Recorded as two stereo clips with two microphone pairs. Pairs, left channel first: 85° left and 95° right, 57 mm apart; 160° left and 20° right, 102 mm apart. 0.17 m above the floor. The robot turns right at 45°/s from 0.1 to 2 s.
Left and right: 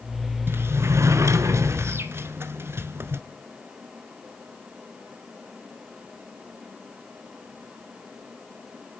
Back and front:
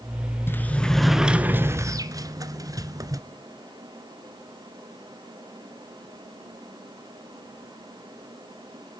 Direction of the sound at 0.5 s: 135° right.